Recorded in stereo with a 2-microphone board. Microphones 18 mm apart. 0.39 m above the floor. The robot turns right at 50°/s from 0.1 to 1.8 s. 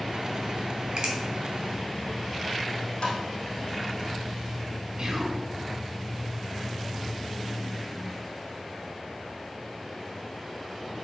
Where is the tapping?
50° left (ahead or behind), 3.5 m.